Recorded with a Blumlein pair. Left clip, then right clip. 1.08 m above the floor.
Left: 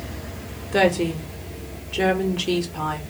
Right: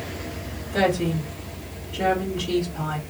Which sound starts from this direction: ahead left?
A woman speaking, at 0.7 s.